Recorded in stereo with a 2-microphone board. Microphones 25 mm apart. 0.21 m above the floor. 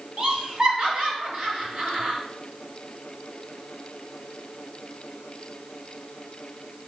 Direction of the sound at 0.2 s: 40° right (ahead or behind).